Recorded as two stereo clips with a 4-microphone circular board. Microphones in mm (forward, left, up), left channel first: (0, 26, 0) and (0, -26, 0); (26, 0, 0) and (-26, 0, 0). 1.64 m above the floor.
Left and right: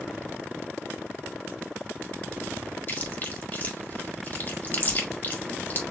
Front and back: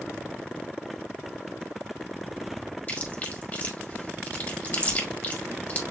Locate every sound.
2.9 s chewing: 45° left, 1.7 m